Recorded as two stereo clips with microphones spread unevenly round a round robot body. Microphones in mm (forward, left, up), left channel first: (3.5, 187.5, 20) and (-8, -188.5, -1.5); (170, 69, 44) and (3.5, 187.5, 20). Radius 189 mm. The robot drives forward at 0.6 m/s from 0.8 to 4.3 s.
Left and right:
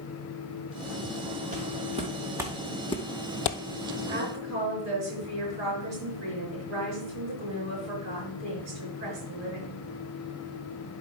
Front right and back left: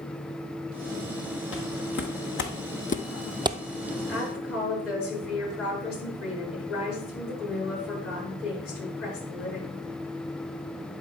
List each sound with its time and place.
1.5 s footsteps: 20° right, 2.5 m; by 3.6 s 85° left, 0.7 m
4.1 s a woman speaking: 30° right, 5 m